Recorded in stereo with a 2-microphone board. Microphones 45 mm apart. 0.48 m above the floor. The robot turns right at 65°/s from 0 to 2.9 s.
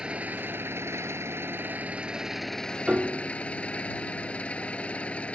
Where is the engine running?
160° right; by 5.4 s 25° left.